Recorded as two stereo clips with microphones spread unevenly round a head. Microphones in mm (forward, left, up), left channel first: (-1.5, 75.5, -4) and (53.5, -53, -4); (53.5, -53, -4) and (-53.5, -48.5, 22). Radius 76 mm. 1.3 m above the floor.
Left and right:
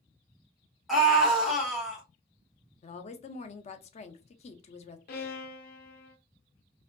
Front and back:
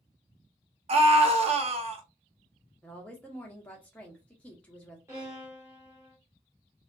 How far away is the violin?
About 0.6 m.